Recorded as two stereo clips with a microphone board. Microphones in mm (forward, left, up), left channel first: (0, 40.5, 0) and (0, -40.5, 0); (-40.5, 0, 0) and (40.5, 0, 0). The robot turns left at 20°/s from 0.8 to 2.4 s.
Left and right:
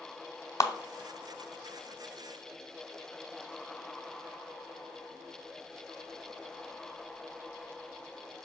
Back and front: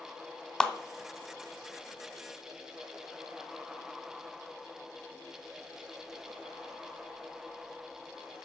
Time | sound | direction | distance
0.6 | a clap | 100° left | 1.0 m